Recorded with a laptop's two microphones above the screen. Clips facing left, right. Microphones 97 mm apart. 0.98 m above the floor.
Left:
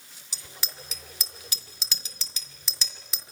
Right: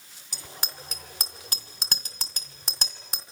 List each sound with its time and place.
0.3 s a bicycle bell: 45° right (ahead or behind), 2 m